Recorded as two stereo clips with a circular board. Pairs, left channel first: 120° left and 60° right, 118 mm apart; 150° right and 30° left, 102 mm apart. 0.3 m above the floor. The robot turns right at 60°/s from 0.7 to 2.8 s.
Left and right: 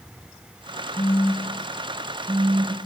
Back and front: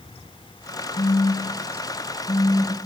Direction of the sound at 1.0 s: 170° left.